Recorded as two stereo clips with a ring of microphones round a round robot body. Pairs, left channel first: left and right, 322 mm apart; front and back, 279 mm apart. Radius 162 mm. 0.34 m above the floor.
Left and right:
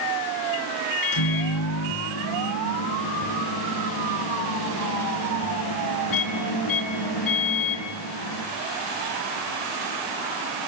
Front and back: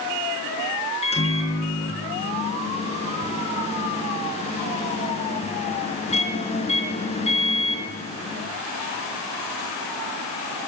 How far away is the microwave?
About 4 m.